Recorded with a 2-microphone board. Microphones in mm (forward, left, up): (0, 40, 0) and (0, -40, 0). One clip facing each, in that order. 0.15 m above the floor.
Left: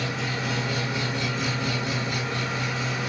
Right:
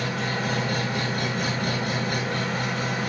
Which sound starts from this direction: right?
An engine running, at 0.0 s.